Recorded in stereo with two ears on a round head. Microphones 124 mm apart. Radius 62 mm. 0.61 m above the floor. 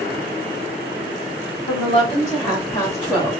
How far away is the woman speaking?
About 1.8 m.